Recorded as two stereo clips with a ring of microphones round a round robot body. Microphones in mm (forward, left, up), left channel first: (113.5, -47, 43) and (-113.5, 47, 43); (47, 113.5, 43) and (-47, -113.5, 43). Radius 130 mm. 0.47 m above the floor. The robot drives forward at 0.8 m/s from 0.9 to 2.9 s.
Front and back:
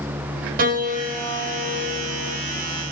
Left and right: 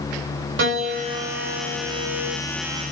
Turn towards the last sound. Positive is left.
turn(degrees=-160)